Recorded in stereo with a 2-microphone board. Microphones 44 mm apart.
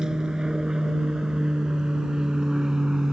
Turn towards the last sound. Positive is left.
turn(degrees=-15)  # may be behind; listen again after turning